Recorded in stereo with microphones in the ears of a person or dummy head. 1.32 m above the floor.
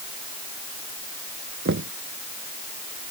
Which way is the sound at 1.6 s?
55° right (ahead or behind).